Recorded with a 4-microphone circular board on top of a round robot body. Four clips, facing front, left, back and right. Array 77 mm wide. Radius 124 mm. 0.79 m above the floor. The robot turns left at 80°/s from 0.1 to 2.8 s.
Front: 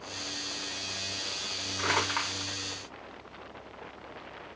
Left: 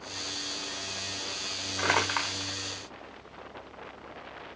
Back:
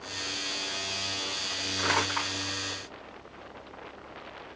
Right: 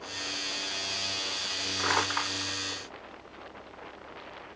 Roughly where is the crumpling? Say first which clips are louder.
Left 1 dB, back 1 dB; left.